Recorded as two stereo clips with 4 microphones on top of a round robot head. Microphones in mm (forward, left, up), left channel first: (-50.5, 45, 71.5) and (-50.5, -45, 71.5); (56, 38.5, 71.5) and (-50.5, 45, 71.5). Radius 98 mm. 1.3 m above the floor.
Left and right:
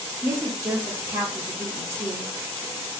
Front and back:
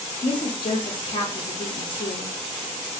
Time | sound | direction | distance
0.2 | a woman speaking | 35° right | 0.8 m